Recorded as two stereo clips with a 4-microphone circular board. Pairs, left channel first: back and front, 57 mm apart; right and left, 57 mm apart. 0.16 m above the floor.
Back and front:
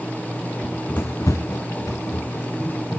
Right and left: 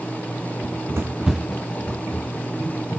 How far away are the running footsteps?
About 0.7 m.